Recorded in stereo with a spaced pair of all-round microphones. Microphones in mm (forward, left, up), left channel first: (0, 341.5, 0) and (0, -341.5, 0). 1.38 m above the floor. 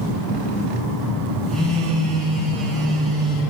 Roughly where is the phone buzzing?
Centre.